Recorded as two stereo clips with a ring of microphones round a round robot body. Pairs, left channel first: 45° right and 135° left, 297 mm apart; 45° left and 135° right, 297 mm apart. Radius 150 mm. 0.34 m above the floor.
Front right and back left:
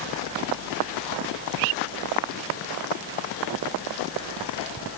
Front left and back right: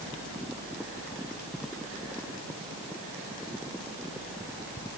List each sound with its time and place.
Only background noise.